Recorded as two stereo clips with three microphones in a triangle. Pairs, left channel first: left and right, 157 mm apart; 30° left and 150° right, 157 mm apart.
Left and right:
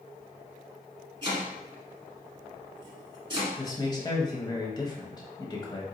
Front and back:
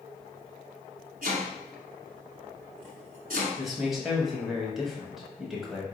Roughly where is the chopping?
Behind right.